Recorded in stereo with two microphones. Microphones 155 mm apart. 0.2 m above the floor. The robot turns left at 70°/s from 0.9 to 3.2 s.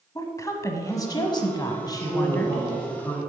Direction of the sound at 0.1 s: 20° left (ahead or behind).